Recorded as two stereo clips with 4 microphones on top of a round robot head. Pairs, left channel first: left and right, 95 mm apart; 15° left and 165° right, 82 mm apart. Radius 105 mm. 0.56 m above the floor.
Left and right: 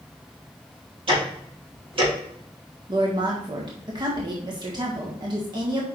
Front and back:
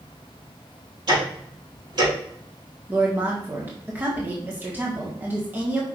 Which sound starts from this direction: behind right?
Ticking, at 1.1 s.